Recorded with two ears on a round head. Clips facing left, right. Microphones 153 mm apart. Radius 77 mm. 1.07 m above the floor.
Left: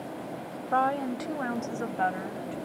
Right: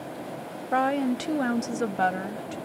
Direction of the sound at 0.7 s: 20° right (ahead or behind).